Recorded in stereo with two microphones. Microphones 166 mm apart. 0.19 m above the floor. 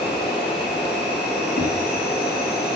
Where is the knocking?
60° left (ahead or behind), 2.5 m.